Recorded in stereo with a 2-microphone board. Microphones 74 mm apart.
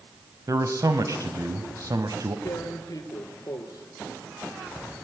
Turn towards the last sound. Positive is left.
turn(degrees=50)  # may be behind; listen again after turning